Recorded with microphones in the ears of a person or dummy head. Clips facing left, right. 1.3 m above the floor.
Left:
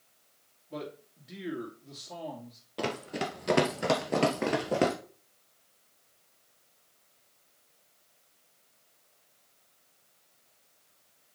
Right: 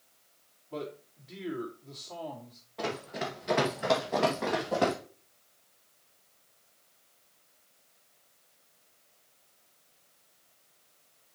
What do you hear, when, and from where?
0.7 s a man speaking: 20° left (ahead or behind), 2.5 m
2.8 s running footsteps: 50° left (ahead or behind), 2 m; by 5.0 s 35° left (ahead or behind), 2 m